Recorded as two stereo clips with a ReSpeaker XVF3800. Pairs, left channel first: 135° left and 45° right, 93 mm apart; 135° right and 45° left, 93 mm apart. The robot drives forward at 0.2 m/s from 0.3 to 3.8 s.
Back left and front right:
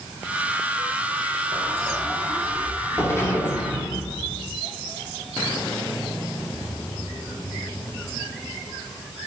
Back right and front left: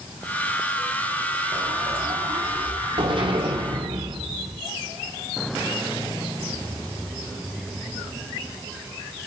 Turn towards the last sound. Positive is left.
turn(degrees=75)